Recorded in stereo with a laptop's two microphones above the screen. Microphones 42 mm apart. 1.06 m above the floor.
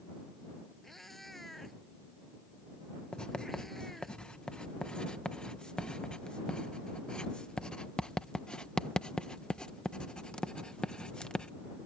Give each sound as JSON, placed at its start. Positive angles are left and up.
{"t": 0.8, "sound": "a cat meowing", "side_deg": 5}
{"t": 3.1, "sound": "writing", "side_deg": 20}